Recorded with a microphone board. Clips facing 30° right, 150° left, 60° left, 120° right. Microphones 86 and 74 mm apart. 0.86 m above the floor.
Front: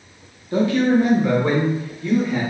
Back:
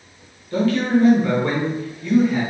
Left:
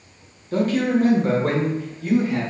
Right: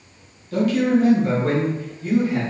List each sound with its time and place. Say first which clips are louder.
0.5 s a man speaking: front 2 dB, right 1 dB; 20° left, 0.8 m; by 2.4 s 60° left, 1.5 m